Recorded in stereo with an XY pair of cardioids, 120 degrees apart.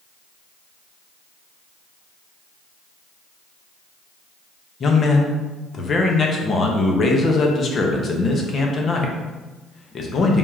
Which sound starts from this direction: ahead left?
A man speaking, at 4.8 s.